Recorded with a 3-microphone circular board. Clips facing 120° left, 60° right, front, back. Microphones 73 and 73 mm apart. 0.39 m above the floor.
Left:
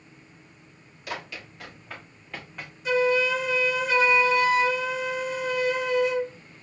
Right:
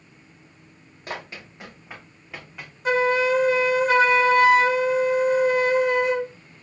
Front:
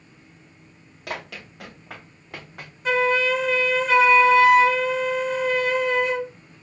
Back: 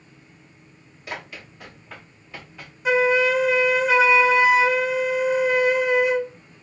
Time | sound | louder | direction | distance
1.1 | running footsteps | right 1 dB, front 1 dB | 5° right | 3 m
2.9 | a flute | right 3 dB, back 2 dB | 100° right | 0.5 m